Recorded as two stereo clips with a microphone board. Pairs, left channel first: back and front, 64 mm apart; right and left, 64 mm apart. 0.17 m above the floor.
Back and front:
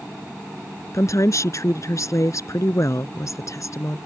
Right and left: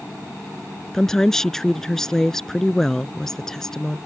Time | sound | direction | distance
0.9 | a woman speaking | 175° right | ?